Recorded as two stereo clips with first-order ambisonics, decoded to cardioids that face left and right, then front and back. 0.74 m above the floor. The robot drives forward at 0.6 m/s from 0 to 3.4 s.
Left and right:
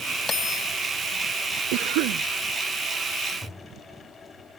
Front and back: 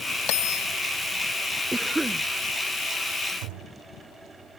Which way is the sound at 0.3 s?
15° left.